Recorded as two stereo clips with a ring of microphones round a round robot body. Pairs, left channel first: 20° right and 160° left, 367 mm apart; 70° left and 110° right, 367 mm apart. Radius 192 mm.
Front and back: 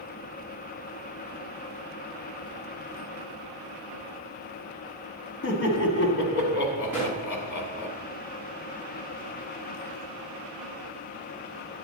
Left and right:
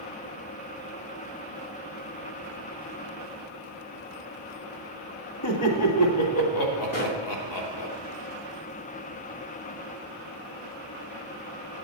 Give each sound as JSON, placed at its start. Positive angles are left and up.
{"t": 5.4, "sound": "laughter", "azimuth_deg": 35, "distance_m": 2.5}
{"t": 6.9, "sound": "a pop", "azimuth_deg": 75, "distance_m": 4.5}